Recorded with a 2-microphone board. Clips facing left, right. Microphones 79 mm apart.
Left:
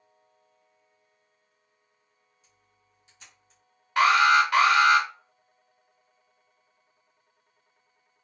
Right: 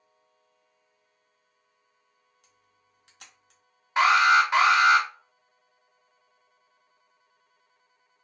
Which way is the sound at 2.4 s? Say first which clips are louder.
Right 1 dB; 70° right (ahead or behind).